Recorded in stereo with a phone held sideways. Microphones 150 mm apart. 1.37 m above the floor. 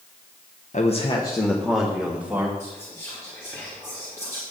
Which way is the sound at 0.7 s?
55° left (ahead or behind).